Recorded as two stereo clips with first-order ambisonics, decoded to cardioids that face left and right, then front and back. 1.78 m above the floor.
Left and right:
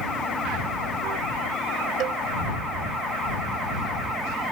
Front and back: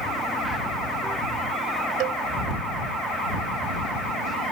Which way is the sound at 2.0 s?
145° right.